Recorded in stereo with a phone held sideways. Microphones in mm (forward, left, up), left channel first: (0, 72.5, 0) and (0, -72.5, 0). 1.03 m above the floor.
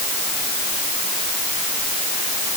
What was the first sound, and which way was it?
Only background noise.